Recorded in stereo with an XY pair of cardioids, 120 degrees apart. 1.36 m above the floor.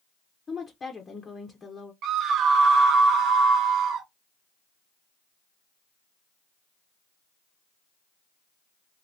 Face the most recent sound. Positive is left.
turn(degrees=-70)